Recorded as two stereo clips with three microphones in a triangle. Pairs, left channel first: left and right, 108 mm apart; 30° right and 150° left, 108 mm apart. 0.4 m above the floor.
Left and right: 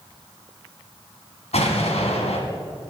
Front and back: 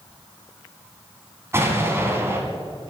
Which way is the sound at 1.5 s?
85° left.